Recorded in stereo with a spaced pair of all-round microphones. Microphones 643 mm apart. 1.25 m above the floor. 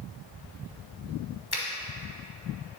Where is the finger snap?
35° left (ahead or behind), 0.9 m.